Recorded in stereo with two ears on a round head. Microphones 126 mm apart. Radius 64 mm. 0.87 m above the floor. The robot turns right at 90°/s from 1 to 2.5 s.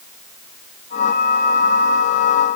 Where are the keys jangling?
No keys jangling in this recording.